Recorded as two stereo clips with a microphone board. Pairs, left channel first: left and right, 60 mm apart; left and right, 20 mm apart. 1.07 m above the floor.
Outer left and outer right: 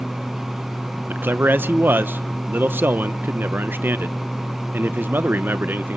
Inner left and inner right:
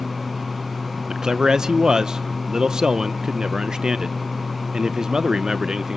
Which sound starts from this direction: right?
A man speaking, at 1.1 s.